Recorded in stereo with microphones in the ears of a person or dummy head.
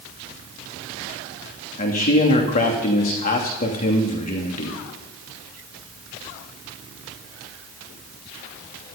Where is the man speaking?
40° left (ahead or behind), 2.5 m.